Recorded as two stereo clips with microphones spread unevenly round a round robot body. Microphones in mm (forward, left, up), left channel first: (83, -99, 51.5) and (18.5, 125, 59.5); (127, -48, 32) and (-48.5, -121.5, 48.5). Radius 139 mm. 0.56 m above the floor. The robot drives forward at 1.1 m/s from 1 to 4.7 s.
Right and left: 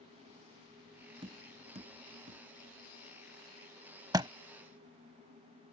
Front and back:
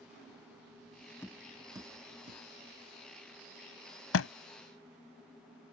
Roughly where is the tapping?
Left.